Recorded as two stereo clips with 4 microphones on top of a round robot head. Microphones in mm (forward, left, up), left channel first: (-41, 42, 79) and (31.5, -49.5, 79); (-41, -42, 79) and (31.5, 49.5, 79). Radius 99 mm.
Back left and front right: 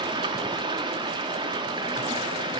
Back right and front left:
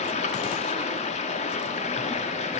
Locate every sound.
0.0 s running water: 100° right, 1.3 m